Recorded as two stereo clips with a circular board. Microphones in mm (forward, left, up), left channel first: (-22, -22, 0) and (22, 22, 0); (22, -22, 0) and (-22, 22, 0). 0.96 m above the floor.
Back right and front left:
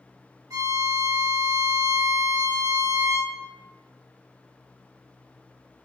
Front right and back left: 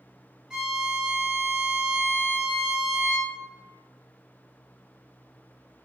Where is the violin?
55° left, 0.9 m.